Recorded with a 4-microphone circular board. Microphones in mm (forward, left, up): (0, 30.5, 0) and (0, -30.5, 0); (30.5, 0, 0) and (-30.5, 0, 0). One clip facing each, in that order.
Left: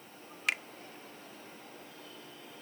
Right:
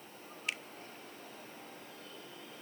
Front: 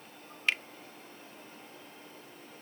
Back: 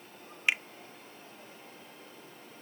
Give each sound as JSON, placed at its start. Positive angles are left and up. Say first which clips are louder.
{"t": 0.5, "sound": "a finger snap", "louder": "left 7 dB, back 1 dB", "azimuth_deg": 105}